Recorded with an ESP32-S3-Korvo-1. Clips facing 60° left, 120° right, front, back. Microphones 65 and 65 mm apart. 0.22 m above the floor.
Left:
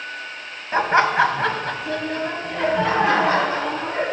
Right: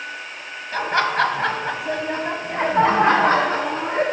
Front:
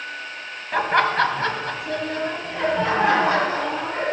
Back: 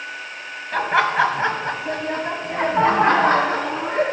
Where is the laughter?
80° left, 1.0 m; by 4.0 s 145° right, 2 m.